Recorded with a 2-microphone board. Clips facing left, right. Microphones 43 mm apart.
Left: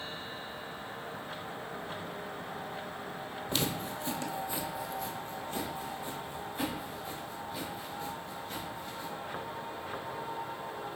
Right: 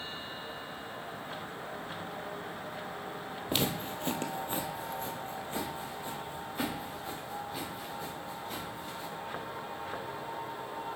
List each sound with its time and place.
3.5 s footsteps: 25° right (ahead or behind), 0.9 m